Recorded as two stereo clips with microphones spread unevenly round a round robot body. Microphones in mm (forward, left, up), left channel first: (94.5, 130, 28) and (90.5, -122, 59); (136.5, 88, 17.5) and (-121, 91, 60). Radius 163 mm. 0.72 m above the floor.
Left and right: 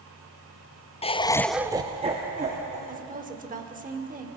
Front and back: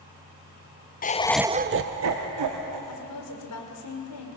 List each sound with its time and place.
1.0 s laughter: 35° left, 0.8 m; by 2.8 s 160° right, 1.8 m
2.9 s a woman speaking: 30° right, 2.5 m